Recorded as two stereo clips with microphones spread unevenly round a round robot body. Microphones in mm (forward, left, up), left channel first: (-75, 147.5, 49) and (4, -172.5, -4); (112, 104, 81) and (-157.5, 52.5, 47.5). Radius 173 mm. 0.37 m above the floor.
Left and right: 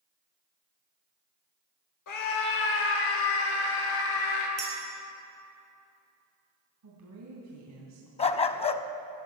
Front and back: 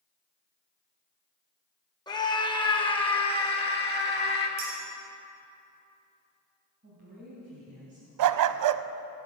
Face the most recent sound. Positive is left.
turn(degrees=175)